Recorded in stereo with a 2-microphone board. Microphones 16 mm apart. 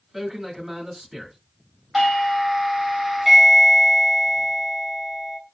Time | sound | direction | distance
0.1 | a man speaking | 35° right (ahead or behind) | 3 m
1.9 | a doorbell | 20° right (ahead or behind) | 1.7 m